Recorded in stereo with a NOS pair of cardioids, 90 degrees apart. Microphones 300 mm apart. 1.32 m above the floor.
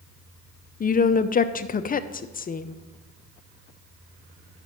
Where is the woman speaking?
30° left, 0.6 m.